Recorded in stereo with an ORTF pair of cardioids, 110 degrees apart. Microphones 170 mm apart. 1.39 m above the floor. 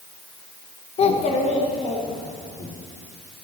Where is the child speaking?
40° left, 0.9 m.